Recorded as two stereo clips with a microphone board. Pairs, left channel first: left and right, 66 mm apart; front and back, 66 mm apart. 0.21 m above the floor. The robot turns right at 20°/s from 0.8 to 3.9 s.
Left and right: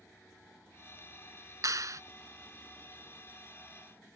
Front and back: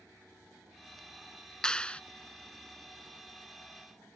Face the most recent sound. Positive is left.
turn(degrees=-30)